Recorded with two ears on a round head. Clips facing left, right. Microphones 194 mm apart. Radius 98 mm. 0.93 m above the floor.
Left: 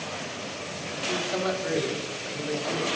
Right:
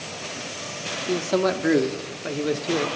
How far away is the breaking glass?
No breaking glass in this recording.